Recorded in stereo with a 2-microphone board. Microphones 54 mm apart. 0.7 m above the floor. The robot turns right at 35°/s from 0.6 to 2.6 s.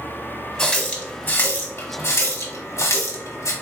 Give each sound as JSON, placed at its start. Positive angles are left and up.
{"t": 0.6, "sound": "a running tap", "side_deg": 20, "distance_m": 1.2}